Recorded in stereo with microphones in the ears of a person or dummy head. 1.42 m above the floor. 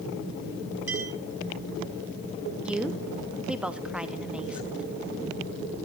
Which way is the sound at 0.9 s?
15° right (ahead or behind).